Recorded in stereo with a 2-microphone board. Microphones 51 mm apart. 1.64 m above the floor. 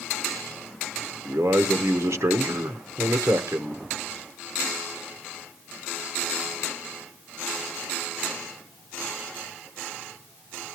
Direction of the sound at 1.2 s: 80° right.